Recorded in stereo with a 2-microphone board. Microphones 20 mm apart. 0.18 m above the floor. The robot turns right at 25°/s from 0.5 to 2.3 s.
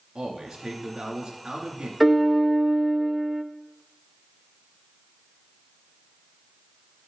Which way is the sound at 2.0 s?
Centre (ahead or behind).